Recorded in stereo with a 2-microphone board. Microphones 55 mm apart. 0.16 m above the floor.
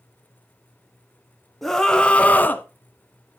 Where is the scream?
5° left (ahead or behind), 1.1 m; by 2.6 s 35° left (ahead or behind), 1.2 m.